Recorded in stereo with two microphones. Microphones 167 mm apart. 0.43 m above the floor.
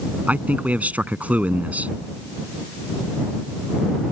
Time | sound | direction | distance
0.3 | a man speaking | 10° right (ahead or behind) | ?